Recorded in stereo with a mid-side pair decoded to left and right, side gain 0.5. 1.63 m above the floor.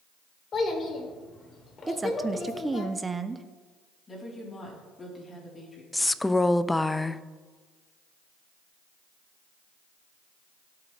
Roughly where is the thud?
I don't hear a thud.